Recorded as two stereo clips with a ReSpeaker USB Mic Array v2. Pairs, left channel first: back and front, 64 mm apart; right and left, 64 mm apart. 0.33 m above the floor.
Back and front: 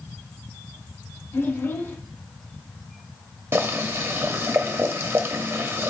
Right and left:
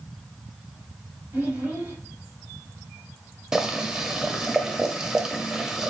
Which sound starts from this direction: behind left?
A child speaking, at 1.3 s.